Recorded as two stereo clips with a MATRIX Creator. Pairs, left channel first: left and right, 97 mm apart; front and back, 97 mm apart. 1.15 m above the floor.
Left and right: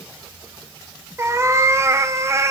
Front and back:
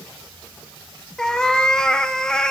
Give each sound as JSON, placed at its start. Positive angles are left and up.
{"t": 1.2, "sound": "a cat meowing", "azimuth_deg": -75, "distance_m": 0.5}